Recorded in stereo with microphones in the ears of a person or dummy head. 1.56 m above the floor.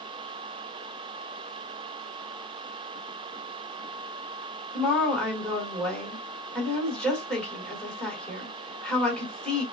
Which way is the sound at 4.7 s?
Centre (ahead or behind).